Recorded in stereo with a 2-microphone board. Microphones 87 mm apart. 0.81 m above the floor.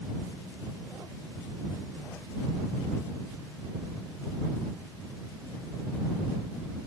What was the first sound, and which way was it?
Only background noise.